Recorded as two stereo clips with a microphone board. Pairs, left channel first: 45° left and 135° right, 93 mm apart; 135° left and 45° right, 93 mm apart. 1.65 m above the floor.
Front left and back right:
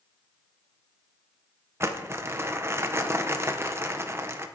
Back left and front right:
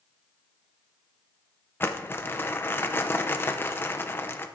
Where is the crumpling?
175° right, 0.7 m.